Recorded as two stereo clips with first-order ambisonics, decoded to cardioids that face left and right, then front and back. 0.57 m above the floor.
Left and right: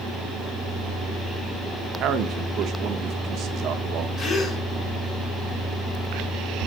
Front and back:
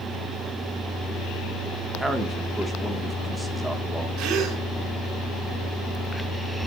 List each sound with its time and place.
2.0 s a man speaking: 90° right, 1.0 m
4.2 s a gasp: 145° left, 2.5 m